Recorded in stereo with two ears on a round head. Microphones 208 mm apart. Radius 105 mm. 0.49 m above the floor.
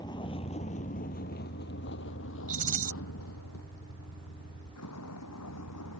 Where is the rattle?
35° right (ahead or behind).